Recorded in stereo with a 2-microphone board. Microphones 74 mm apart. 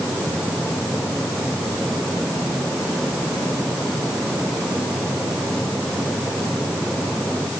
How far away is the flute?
No flute in this recording.